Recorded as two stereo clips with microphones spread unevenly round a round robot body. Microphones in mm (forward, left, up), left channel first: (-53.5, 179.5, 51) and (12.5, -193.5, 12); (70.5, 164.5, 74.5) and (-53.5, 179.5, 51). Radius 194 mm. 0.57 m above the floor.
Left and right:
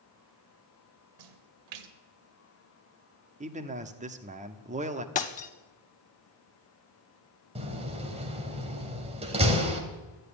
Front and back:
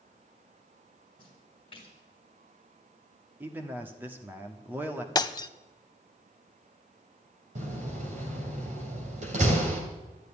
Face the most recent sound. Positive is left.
turn(degrees=-155)